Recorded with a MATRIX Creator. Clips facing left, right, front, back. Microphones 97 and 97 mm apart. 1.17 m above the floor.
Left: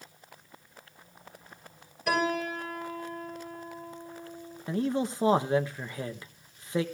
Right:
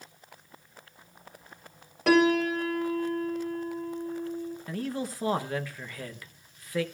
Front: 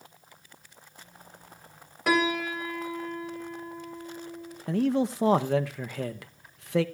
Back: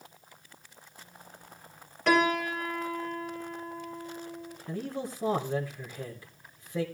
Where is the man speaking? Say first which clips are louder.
Left 7 dB, front 11 dB; 20° left, 0.8 m.